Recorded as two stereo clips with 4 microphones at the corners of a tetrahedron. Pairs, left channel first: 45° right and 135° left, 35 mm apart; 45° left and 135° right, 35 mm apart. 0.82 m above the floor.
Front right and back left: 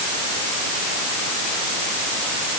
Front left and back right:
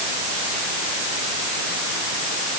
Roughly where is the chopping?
No chopping in this recording.